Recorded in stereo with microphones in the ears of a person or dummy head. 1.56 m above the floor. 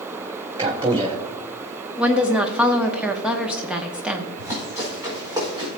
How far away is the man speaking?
About 1.2 m.